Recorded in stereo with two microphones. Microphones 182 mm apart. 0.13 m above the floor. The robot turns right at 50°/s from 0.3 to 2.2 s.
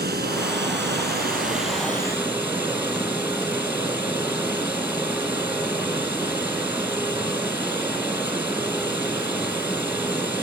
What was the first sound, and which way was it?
Running water, 105° right.